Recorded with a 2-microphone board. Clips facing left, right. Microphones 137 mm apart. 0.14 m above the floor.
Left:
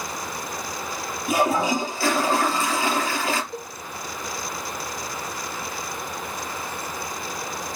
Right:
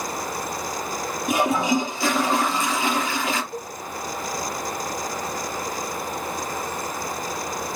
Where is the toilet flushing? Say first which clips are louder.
Even; 20° right (ahead or behind), 3.5 m.